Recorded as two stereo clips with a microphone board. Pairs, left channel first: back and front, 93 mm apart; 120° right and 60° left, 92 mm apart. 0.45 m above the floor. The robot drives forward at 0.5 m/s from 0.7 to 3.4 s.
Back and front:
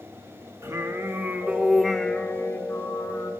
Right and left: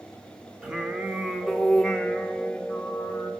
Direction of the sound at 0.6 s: 10° right.